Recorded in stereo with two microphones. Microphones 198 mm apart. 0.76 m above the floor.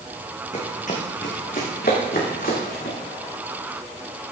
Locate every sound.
0.5 s running footsteps: 35° left (ahead or behind), 2.5 m; by 3.0 s 50° left (ahead or behind), 4 m